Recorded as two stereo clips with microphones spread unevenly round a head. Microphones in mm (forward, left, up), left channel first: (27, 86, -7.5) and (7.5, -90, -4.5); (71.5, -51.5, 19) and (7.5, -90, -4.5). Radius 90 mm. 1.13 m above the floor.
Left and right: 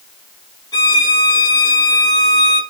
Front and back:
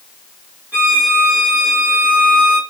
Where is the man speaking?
No man speaking in this recording.